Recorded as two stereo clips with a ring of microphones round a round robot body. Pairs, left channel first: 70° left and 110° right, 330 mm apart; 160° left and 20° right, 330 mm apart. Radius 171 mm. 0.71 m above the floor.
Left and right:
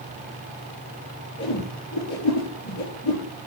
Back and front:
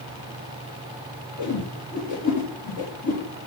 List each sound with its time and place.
1.4 s a whoosh: 120° left, 4.5 m